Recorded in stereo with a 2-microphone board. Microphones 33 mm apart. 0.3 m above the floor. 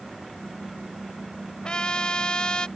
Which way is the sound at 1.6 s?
30° left (ahead or behind).